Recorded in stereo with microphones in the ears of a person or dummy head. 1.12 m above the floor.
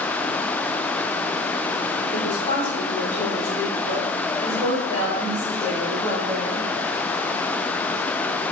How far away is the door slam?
I don't hear a door slam.